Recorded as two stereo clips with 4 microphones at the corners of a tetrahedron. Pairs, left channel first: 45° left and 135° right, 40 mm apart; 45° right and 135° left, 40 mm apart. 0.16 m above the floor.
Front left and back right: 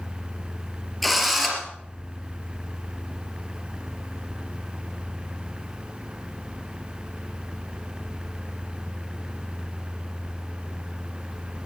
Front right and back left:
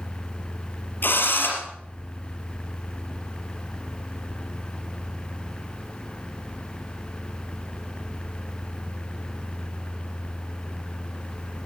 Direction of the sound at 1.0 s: 40° right.